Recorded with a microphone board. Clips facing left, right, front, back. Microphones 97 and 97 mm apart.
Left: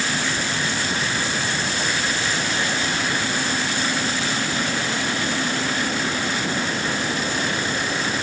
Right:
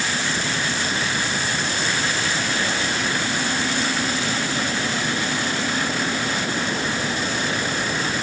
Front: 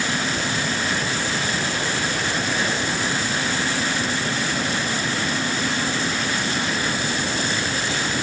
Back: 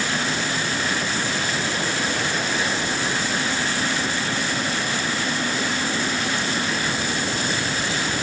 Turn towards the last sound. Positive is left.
No sound to turn to.